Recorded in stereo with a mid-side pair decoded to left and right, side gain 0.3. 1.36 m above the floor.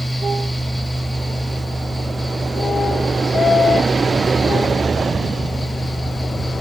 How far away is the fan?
About 1.3 m.